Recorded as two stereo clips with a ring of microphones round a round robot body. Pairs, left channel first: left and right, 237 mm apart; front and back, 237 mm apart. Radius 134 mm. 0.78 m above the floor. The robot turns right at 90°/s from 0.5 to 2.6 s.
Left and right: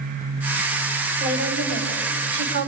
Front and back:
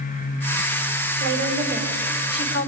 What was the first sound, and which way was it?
A woman speaking, 150° right.